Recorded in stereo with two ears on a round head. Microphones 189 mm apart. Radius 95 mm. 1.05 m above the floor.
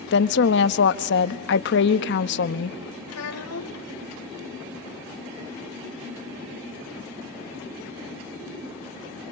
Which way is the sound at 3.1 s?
85° left.